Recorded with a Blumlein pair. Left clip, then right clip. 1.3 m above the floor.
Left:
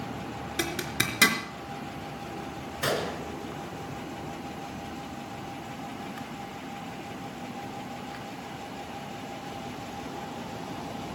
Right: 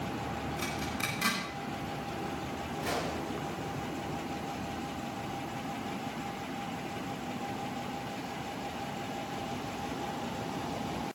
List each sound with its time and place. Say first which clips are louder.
0.6 s a zipper: left 8 dB; 55° left, 4 m
2.8 s a gunshot: left 6 dB; 55° left, 3.5 m